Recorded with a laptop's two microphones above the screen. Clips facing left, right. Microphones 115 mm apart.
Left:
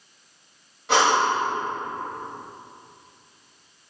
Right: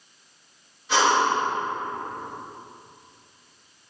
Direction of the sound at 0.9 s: 85° left.